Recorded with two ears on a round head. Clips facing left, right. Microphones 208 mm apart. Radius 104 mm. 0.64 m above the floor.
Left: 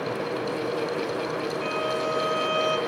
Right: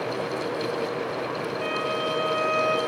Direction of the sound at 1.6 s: 65° left (ahead or behind).